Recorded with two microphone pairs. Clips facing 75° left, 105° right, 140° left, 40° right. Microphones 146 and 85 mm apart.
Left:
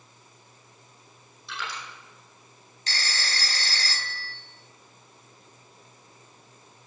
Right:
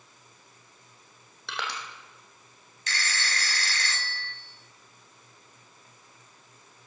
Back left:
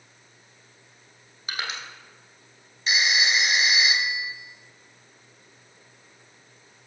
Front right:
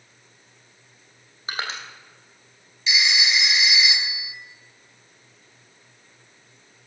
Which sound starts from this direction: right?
Crushing, at 1.5 s.